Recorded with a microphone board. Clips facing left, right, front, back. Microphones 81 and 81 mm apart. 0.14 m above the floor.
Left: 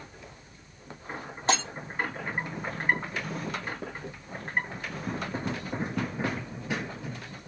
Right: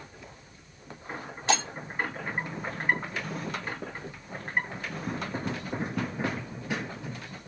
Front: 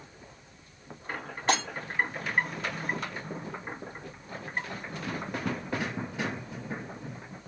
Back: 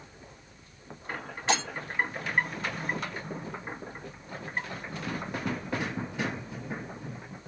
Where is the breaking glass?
40° left, 3 m.